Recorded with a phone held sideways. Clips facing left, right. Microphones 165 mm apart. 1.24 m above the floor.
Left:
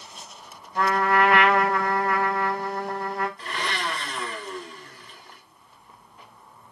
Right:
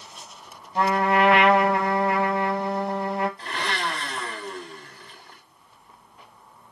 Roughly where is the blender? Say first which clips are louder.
Right 1 dB; right.